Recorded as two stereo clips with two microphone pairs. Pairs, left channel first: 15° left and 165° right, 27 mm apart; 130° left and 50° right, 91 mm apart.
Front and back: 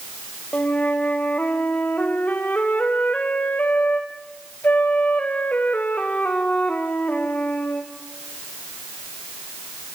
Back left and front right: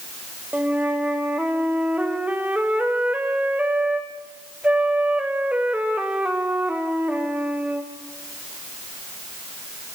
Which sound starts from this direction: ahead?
A flute, at 0.5 s.